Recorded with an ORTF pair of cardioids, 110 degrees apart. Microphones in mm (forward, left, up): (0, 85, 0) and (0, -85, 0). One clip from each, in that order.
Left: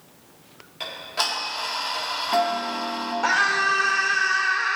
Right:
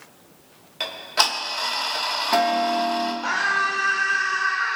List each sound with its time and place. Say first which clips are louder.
0.8 s ticking: right 5 dB; 35° right, 1.8 m
3.2 s a scream: left 3 dB; 55° left, 4 m